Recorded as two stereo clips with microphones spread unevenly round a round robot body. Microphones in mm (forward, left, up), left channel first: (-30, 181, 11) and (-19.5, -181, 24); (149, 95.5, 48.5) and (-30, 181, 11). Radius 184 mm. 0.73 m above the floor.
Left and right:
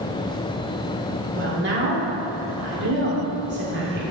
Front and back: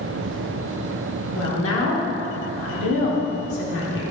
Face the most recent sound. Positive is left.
turn(degrees=-25)